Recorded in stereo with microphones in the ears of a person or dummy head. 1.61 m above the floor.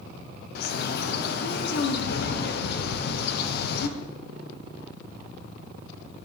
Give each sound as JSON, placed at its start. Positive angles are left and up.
{"t": 0.6, "sound": "a bird", "side_deg": 60, "distance_m": 0.6}